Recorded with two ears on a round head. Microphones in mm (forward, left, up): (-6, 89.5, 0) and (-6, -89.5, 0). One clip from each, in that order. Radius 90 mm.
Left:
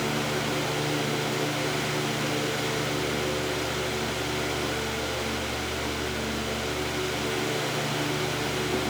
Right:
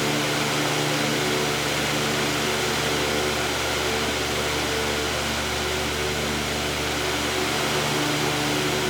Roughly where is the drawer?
No drawer in this recording.